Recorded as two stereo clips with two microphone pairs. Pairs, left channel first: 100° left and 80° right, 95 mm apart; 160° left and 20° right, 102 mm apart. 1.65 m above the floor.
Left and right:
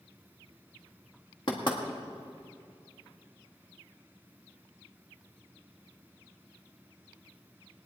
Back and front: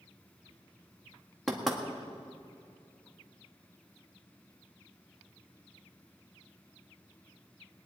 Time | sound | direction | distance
1.5 | knocking | 70° left | 1.8 m